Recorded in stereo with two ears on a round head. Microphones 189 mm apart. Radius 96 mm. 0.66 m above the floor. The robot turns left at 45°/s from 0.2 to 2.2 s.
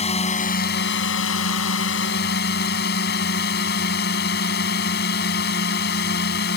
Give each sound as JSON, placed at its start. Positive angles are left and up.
{"t": 0.0, "sound": "a drone", "azimuth_deg": 145}